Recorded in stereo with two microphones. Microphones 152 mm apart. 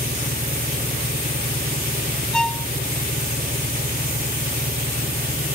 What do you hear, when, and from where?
0.0 s an engine running: 90° right
2.3 s a violin: 5° left (ahead or behind)